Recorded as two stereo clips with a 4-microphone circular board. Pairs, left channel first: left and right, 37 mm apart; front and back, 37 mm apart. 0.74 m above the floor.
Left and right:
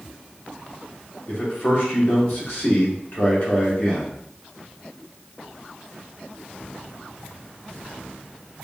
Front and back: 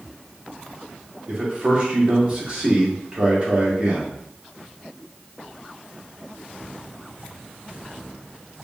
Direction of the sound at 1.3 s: 120° left.